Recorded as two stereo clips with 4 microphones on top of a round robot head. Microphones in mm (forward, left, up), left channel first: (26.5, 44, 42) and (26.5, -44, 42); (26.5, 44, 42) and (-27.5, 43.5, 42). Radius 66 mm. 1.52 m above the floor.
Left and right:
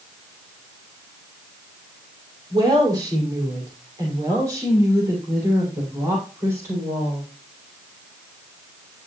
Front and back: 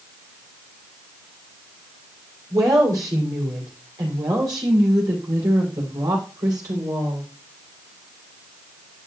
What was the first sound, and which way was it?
A woman speaking, 140° right.